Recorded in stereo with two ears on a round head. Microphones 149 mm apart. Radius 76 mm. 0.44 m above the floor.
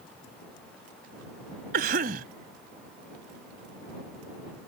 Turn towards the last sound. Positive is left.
turn(degrees=-65)  # may be behind; listen again after turning